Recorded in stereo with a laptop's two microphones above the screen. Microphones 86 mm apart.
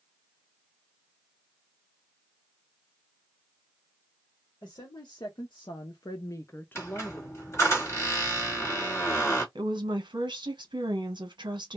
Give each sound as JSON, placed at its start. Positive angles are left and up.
{"t": 4.6, "sound": "a woman speaking", "side_deg": 45, "distance_m": 0.9}
{"t": 6.8, "sound": "a squeak", "side_deg": 30, "distance_m": 1.1}
{"t": 9.6, "sound": "a woman speaking", "side_deg": -65, "distance_m": 0.9}